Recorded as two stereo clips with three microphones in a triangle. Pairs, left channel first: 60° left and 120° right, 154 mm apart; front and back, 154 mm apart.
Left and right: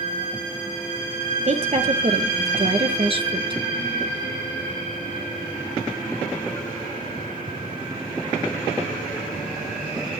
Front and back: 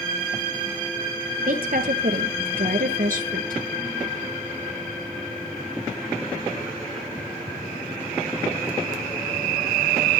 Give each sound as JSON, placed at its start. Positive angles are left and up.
{"t": 1.4, "sound": "a woman speaking", "azimuth_deg": -165, "distance_m": 4.0}